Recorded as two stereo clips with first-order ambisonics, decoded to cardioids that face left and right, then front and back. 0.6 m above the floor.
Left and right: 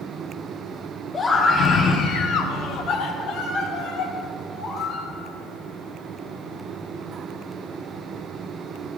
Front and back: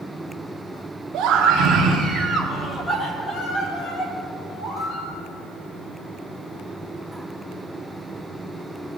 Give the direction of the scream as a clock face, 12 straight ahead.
7 o'clock.